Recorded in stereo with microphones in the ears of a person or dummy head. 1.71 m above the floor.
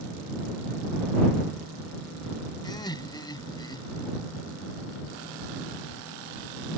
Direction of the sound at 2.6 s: 30° left (ahead or behind).